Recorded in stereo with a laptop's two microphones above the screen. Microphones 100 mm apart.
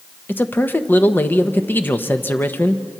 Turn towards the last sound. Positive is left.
turn(degrees=20)  # may be behind; listen again after turning